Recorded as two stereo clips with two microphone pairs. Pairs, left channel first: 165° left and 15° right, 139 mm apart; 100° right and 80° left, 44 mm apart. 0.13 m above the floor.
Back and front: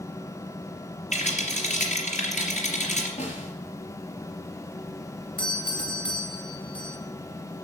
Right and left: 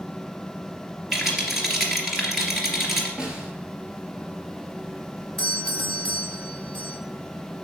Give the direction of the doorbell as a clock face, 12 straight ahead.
6 o'clock.